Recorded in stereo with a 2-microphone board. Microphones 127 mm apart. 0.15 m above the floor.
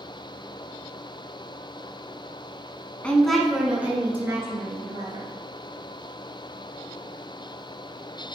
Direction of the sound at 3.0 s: 10° left (ahead or behind).